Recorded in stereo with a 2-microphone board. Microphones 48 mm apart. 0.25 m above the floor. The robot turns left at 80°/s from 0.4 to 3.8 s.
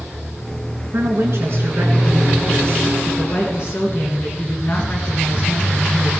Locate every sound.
0.9 s a woman speaking: 70° right, 3 m; by 6.1 s 65° left, 3 m